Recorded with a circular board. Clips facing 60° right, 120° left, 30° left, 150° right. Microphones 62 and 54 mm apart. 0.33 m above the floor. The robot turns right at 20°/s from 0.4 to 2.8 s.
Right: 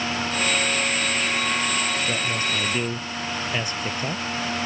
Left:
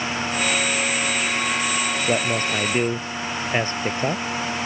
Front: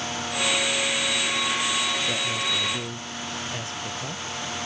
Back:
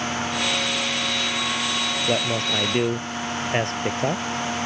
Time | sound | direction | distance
2.1 | a man speaking | 165° left | ?